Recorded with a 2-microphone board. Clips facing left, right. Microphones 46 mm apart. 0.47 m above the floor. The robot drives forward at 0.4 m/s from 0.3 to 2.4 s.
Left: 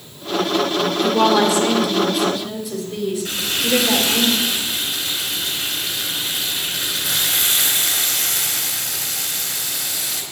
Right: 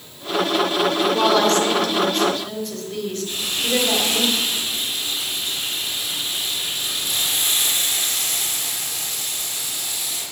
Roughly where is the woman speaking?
Centre.